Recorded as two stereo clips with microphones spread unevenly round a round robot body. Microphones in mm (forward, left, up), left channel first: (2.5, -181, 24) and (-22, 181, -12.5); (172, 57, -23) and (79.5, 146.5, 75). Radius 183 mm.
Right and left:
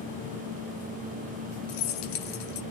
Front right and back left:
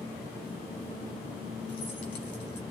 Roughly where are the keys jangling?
Right.